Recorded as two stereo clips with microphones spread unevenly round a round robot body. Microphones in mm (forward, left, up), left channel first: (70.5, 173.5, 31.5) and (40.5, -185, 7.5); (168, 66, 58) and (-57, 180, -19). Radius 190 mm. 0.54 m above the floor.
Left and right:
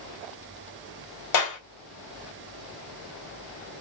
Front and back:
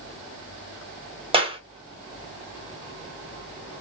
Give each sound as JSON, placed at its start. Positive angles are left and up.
{"t": 1.3, "sound": "a clap", "azimuth_deg": 105, "distance_m": 1.2}